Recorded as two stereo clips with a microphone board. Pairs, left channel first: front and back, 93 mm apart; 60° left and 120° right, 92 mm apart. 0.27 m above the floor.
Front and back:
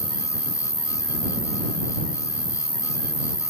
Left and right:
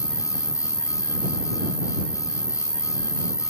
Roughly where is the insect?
Behind.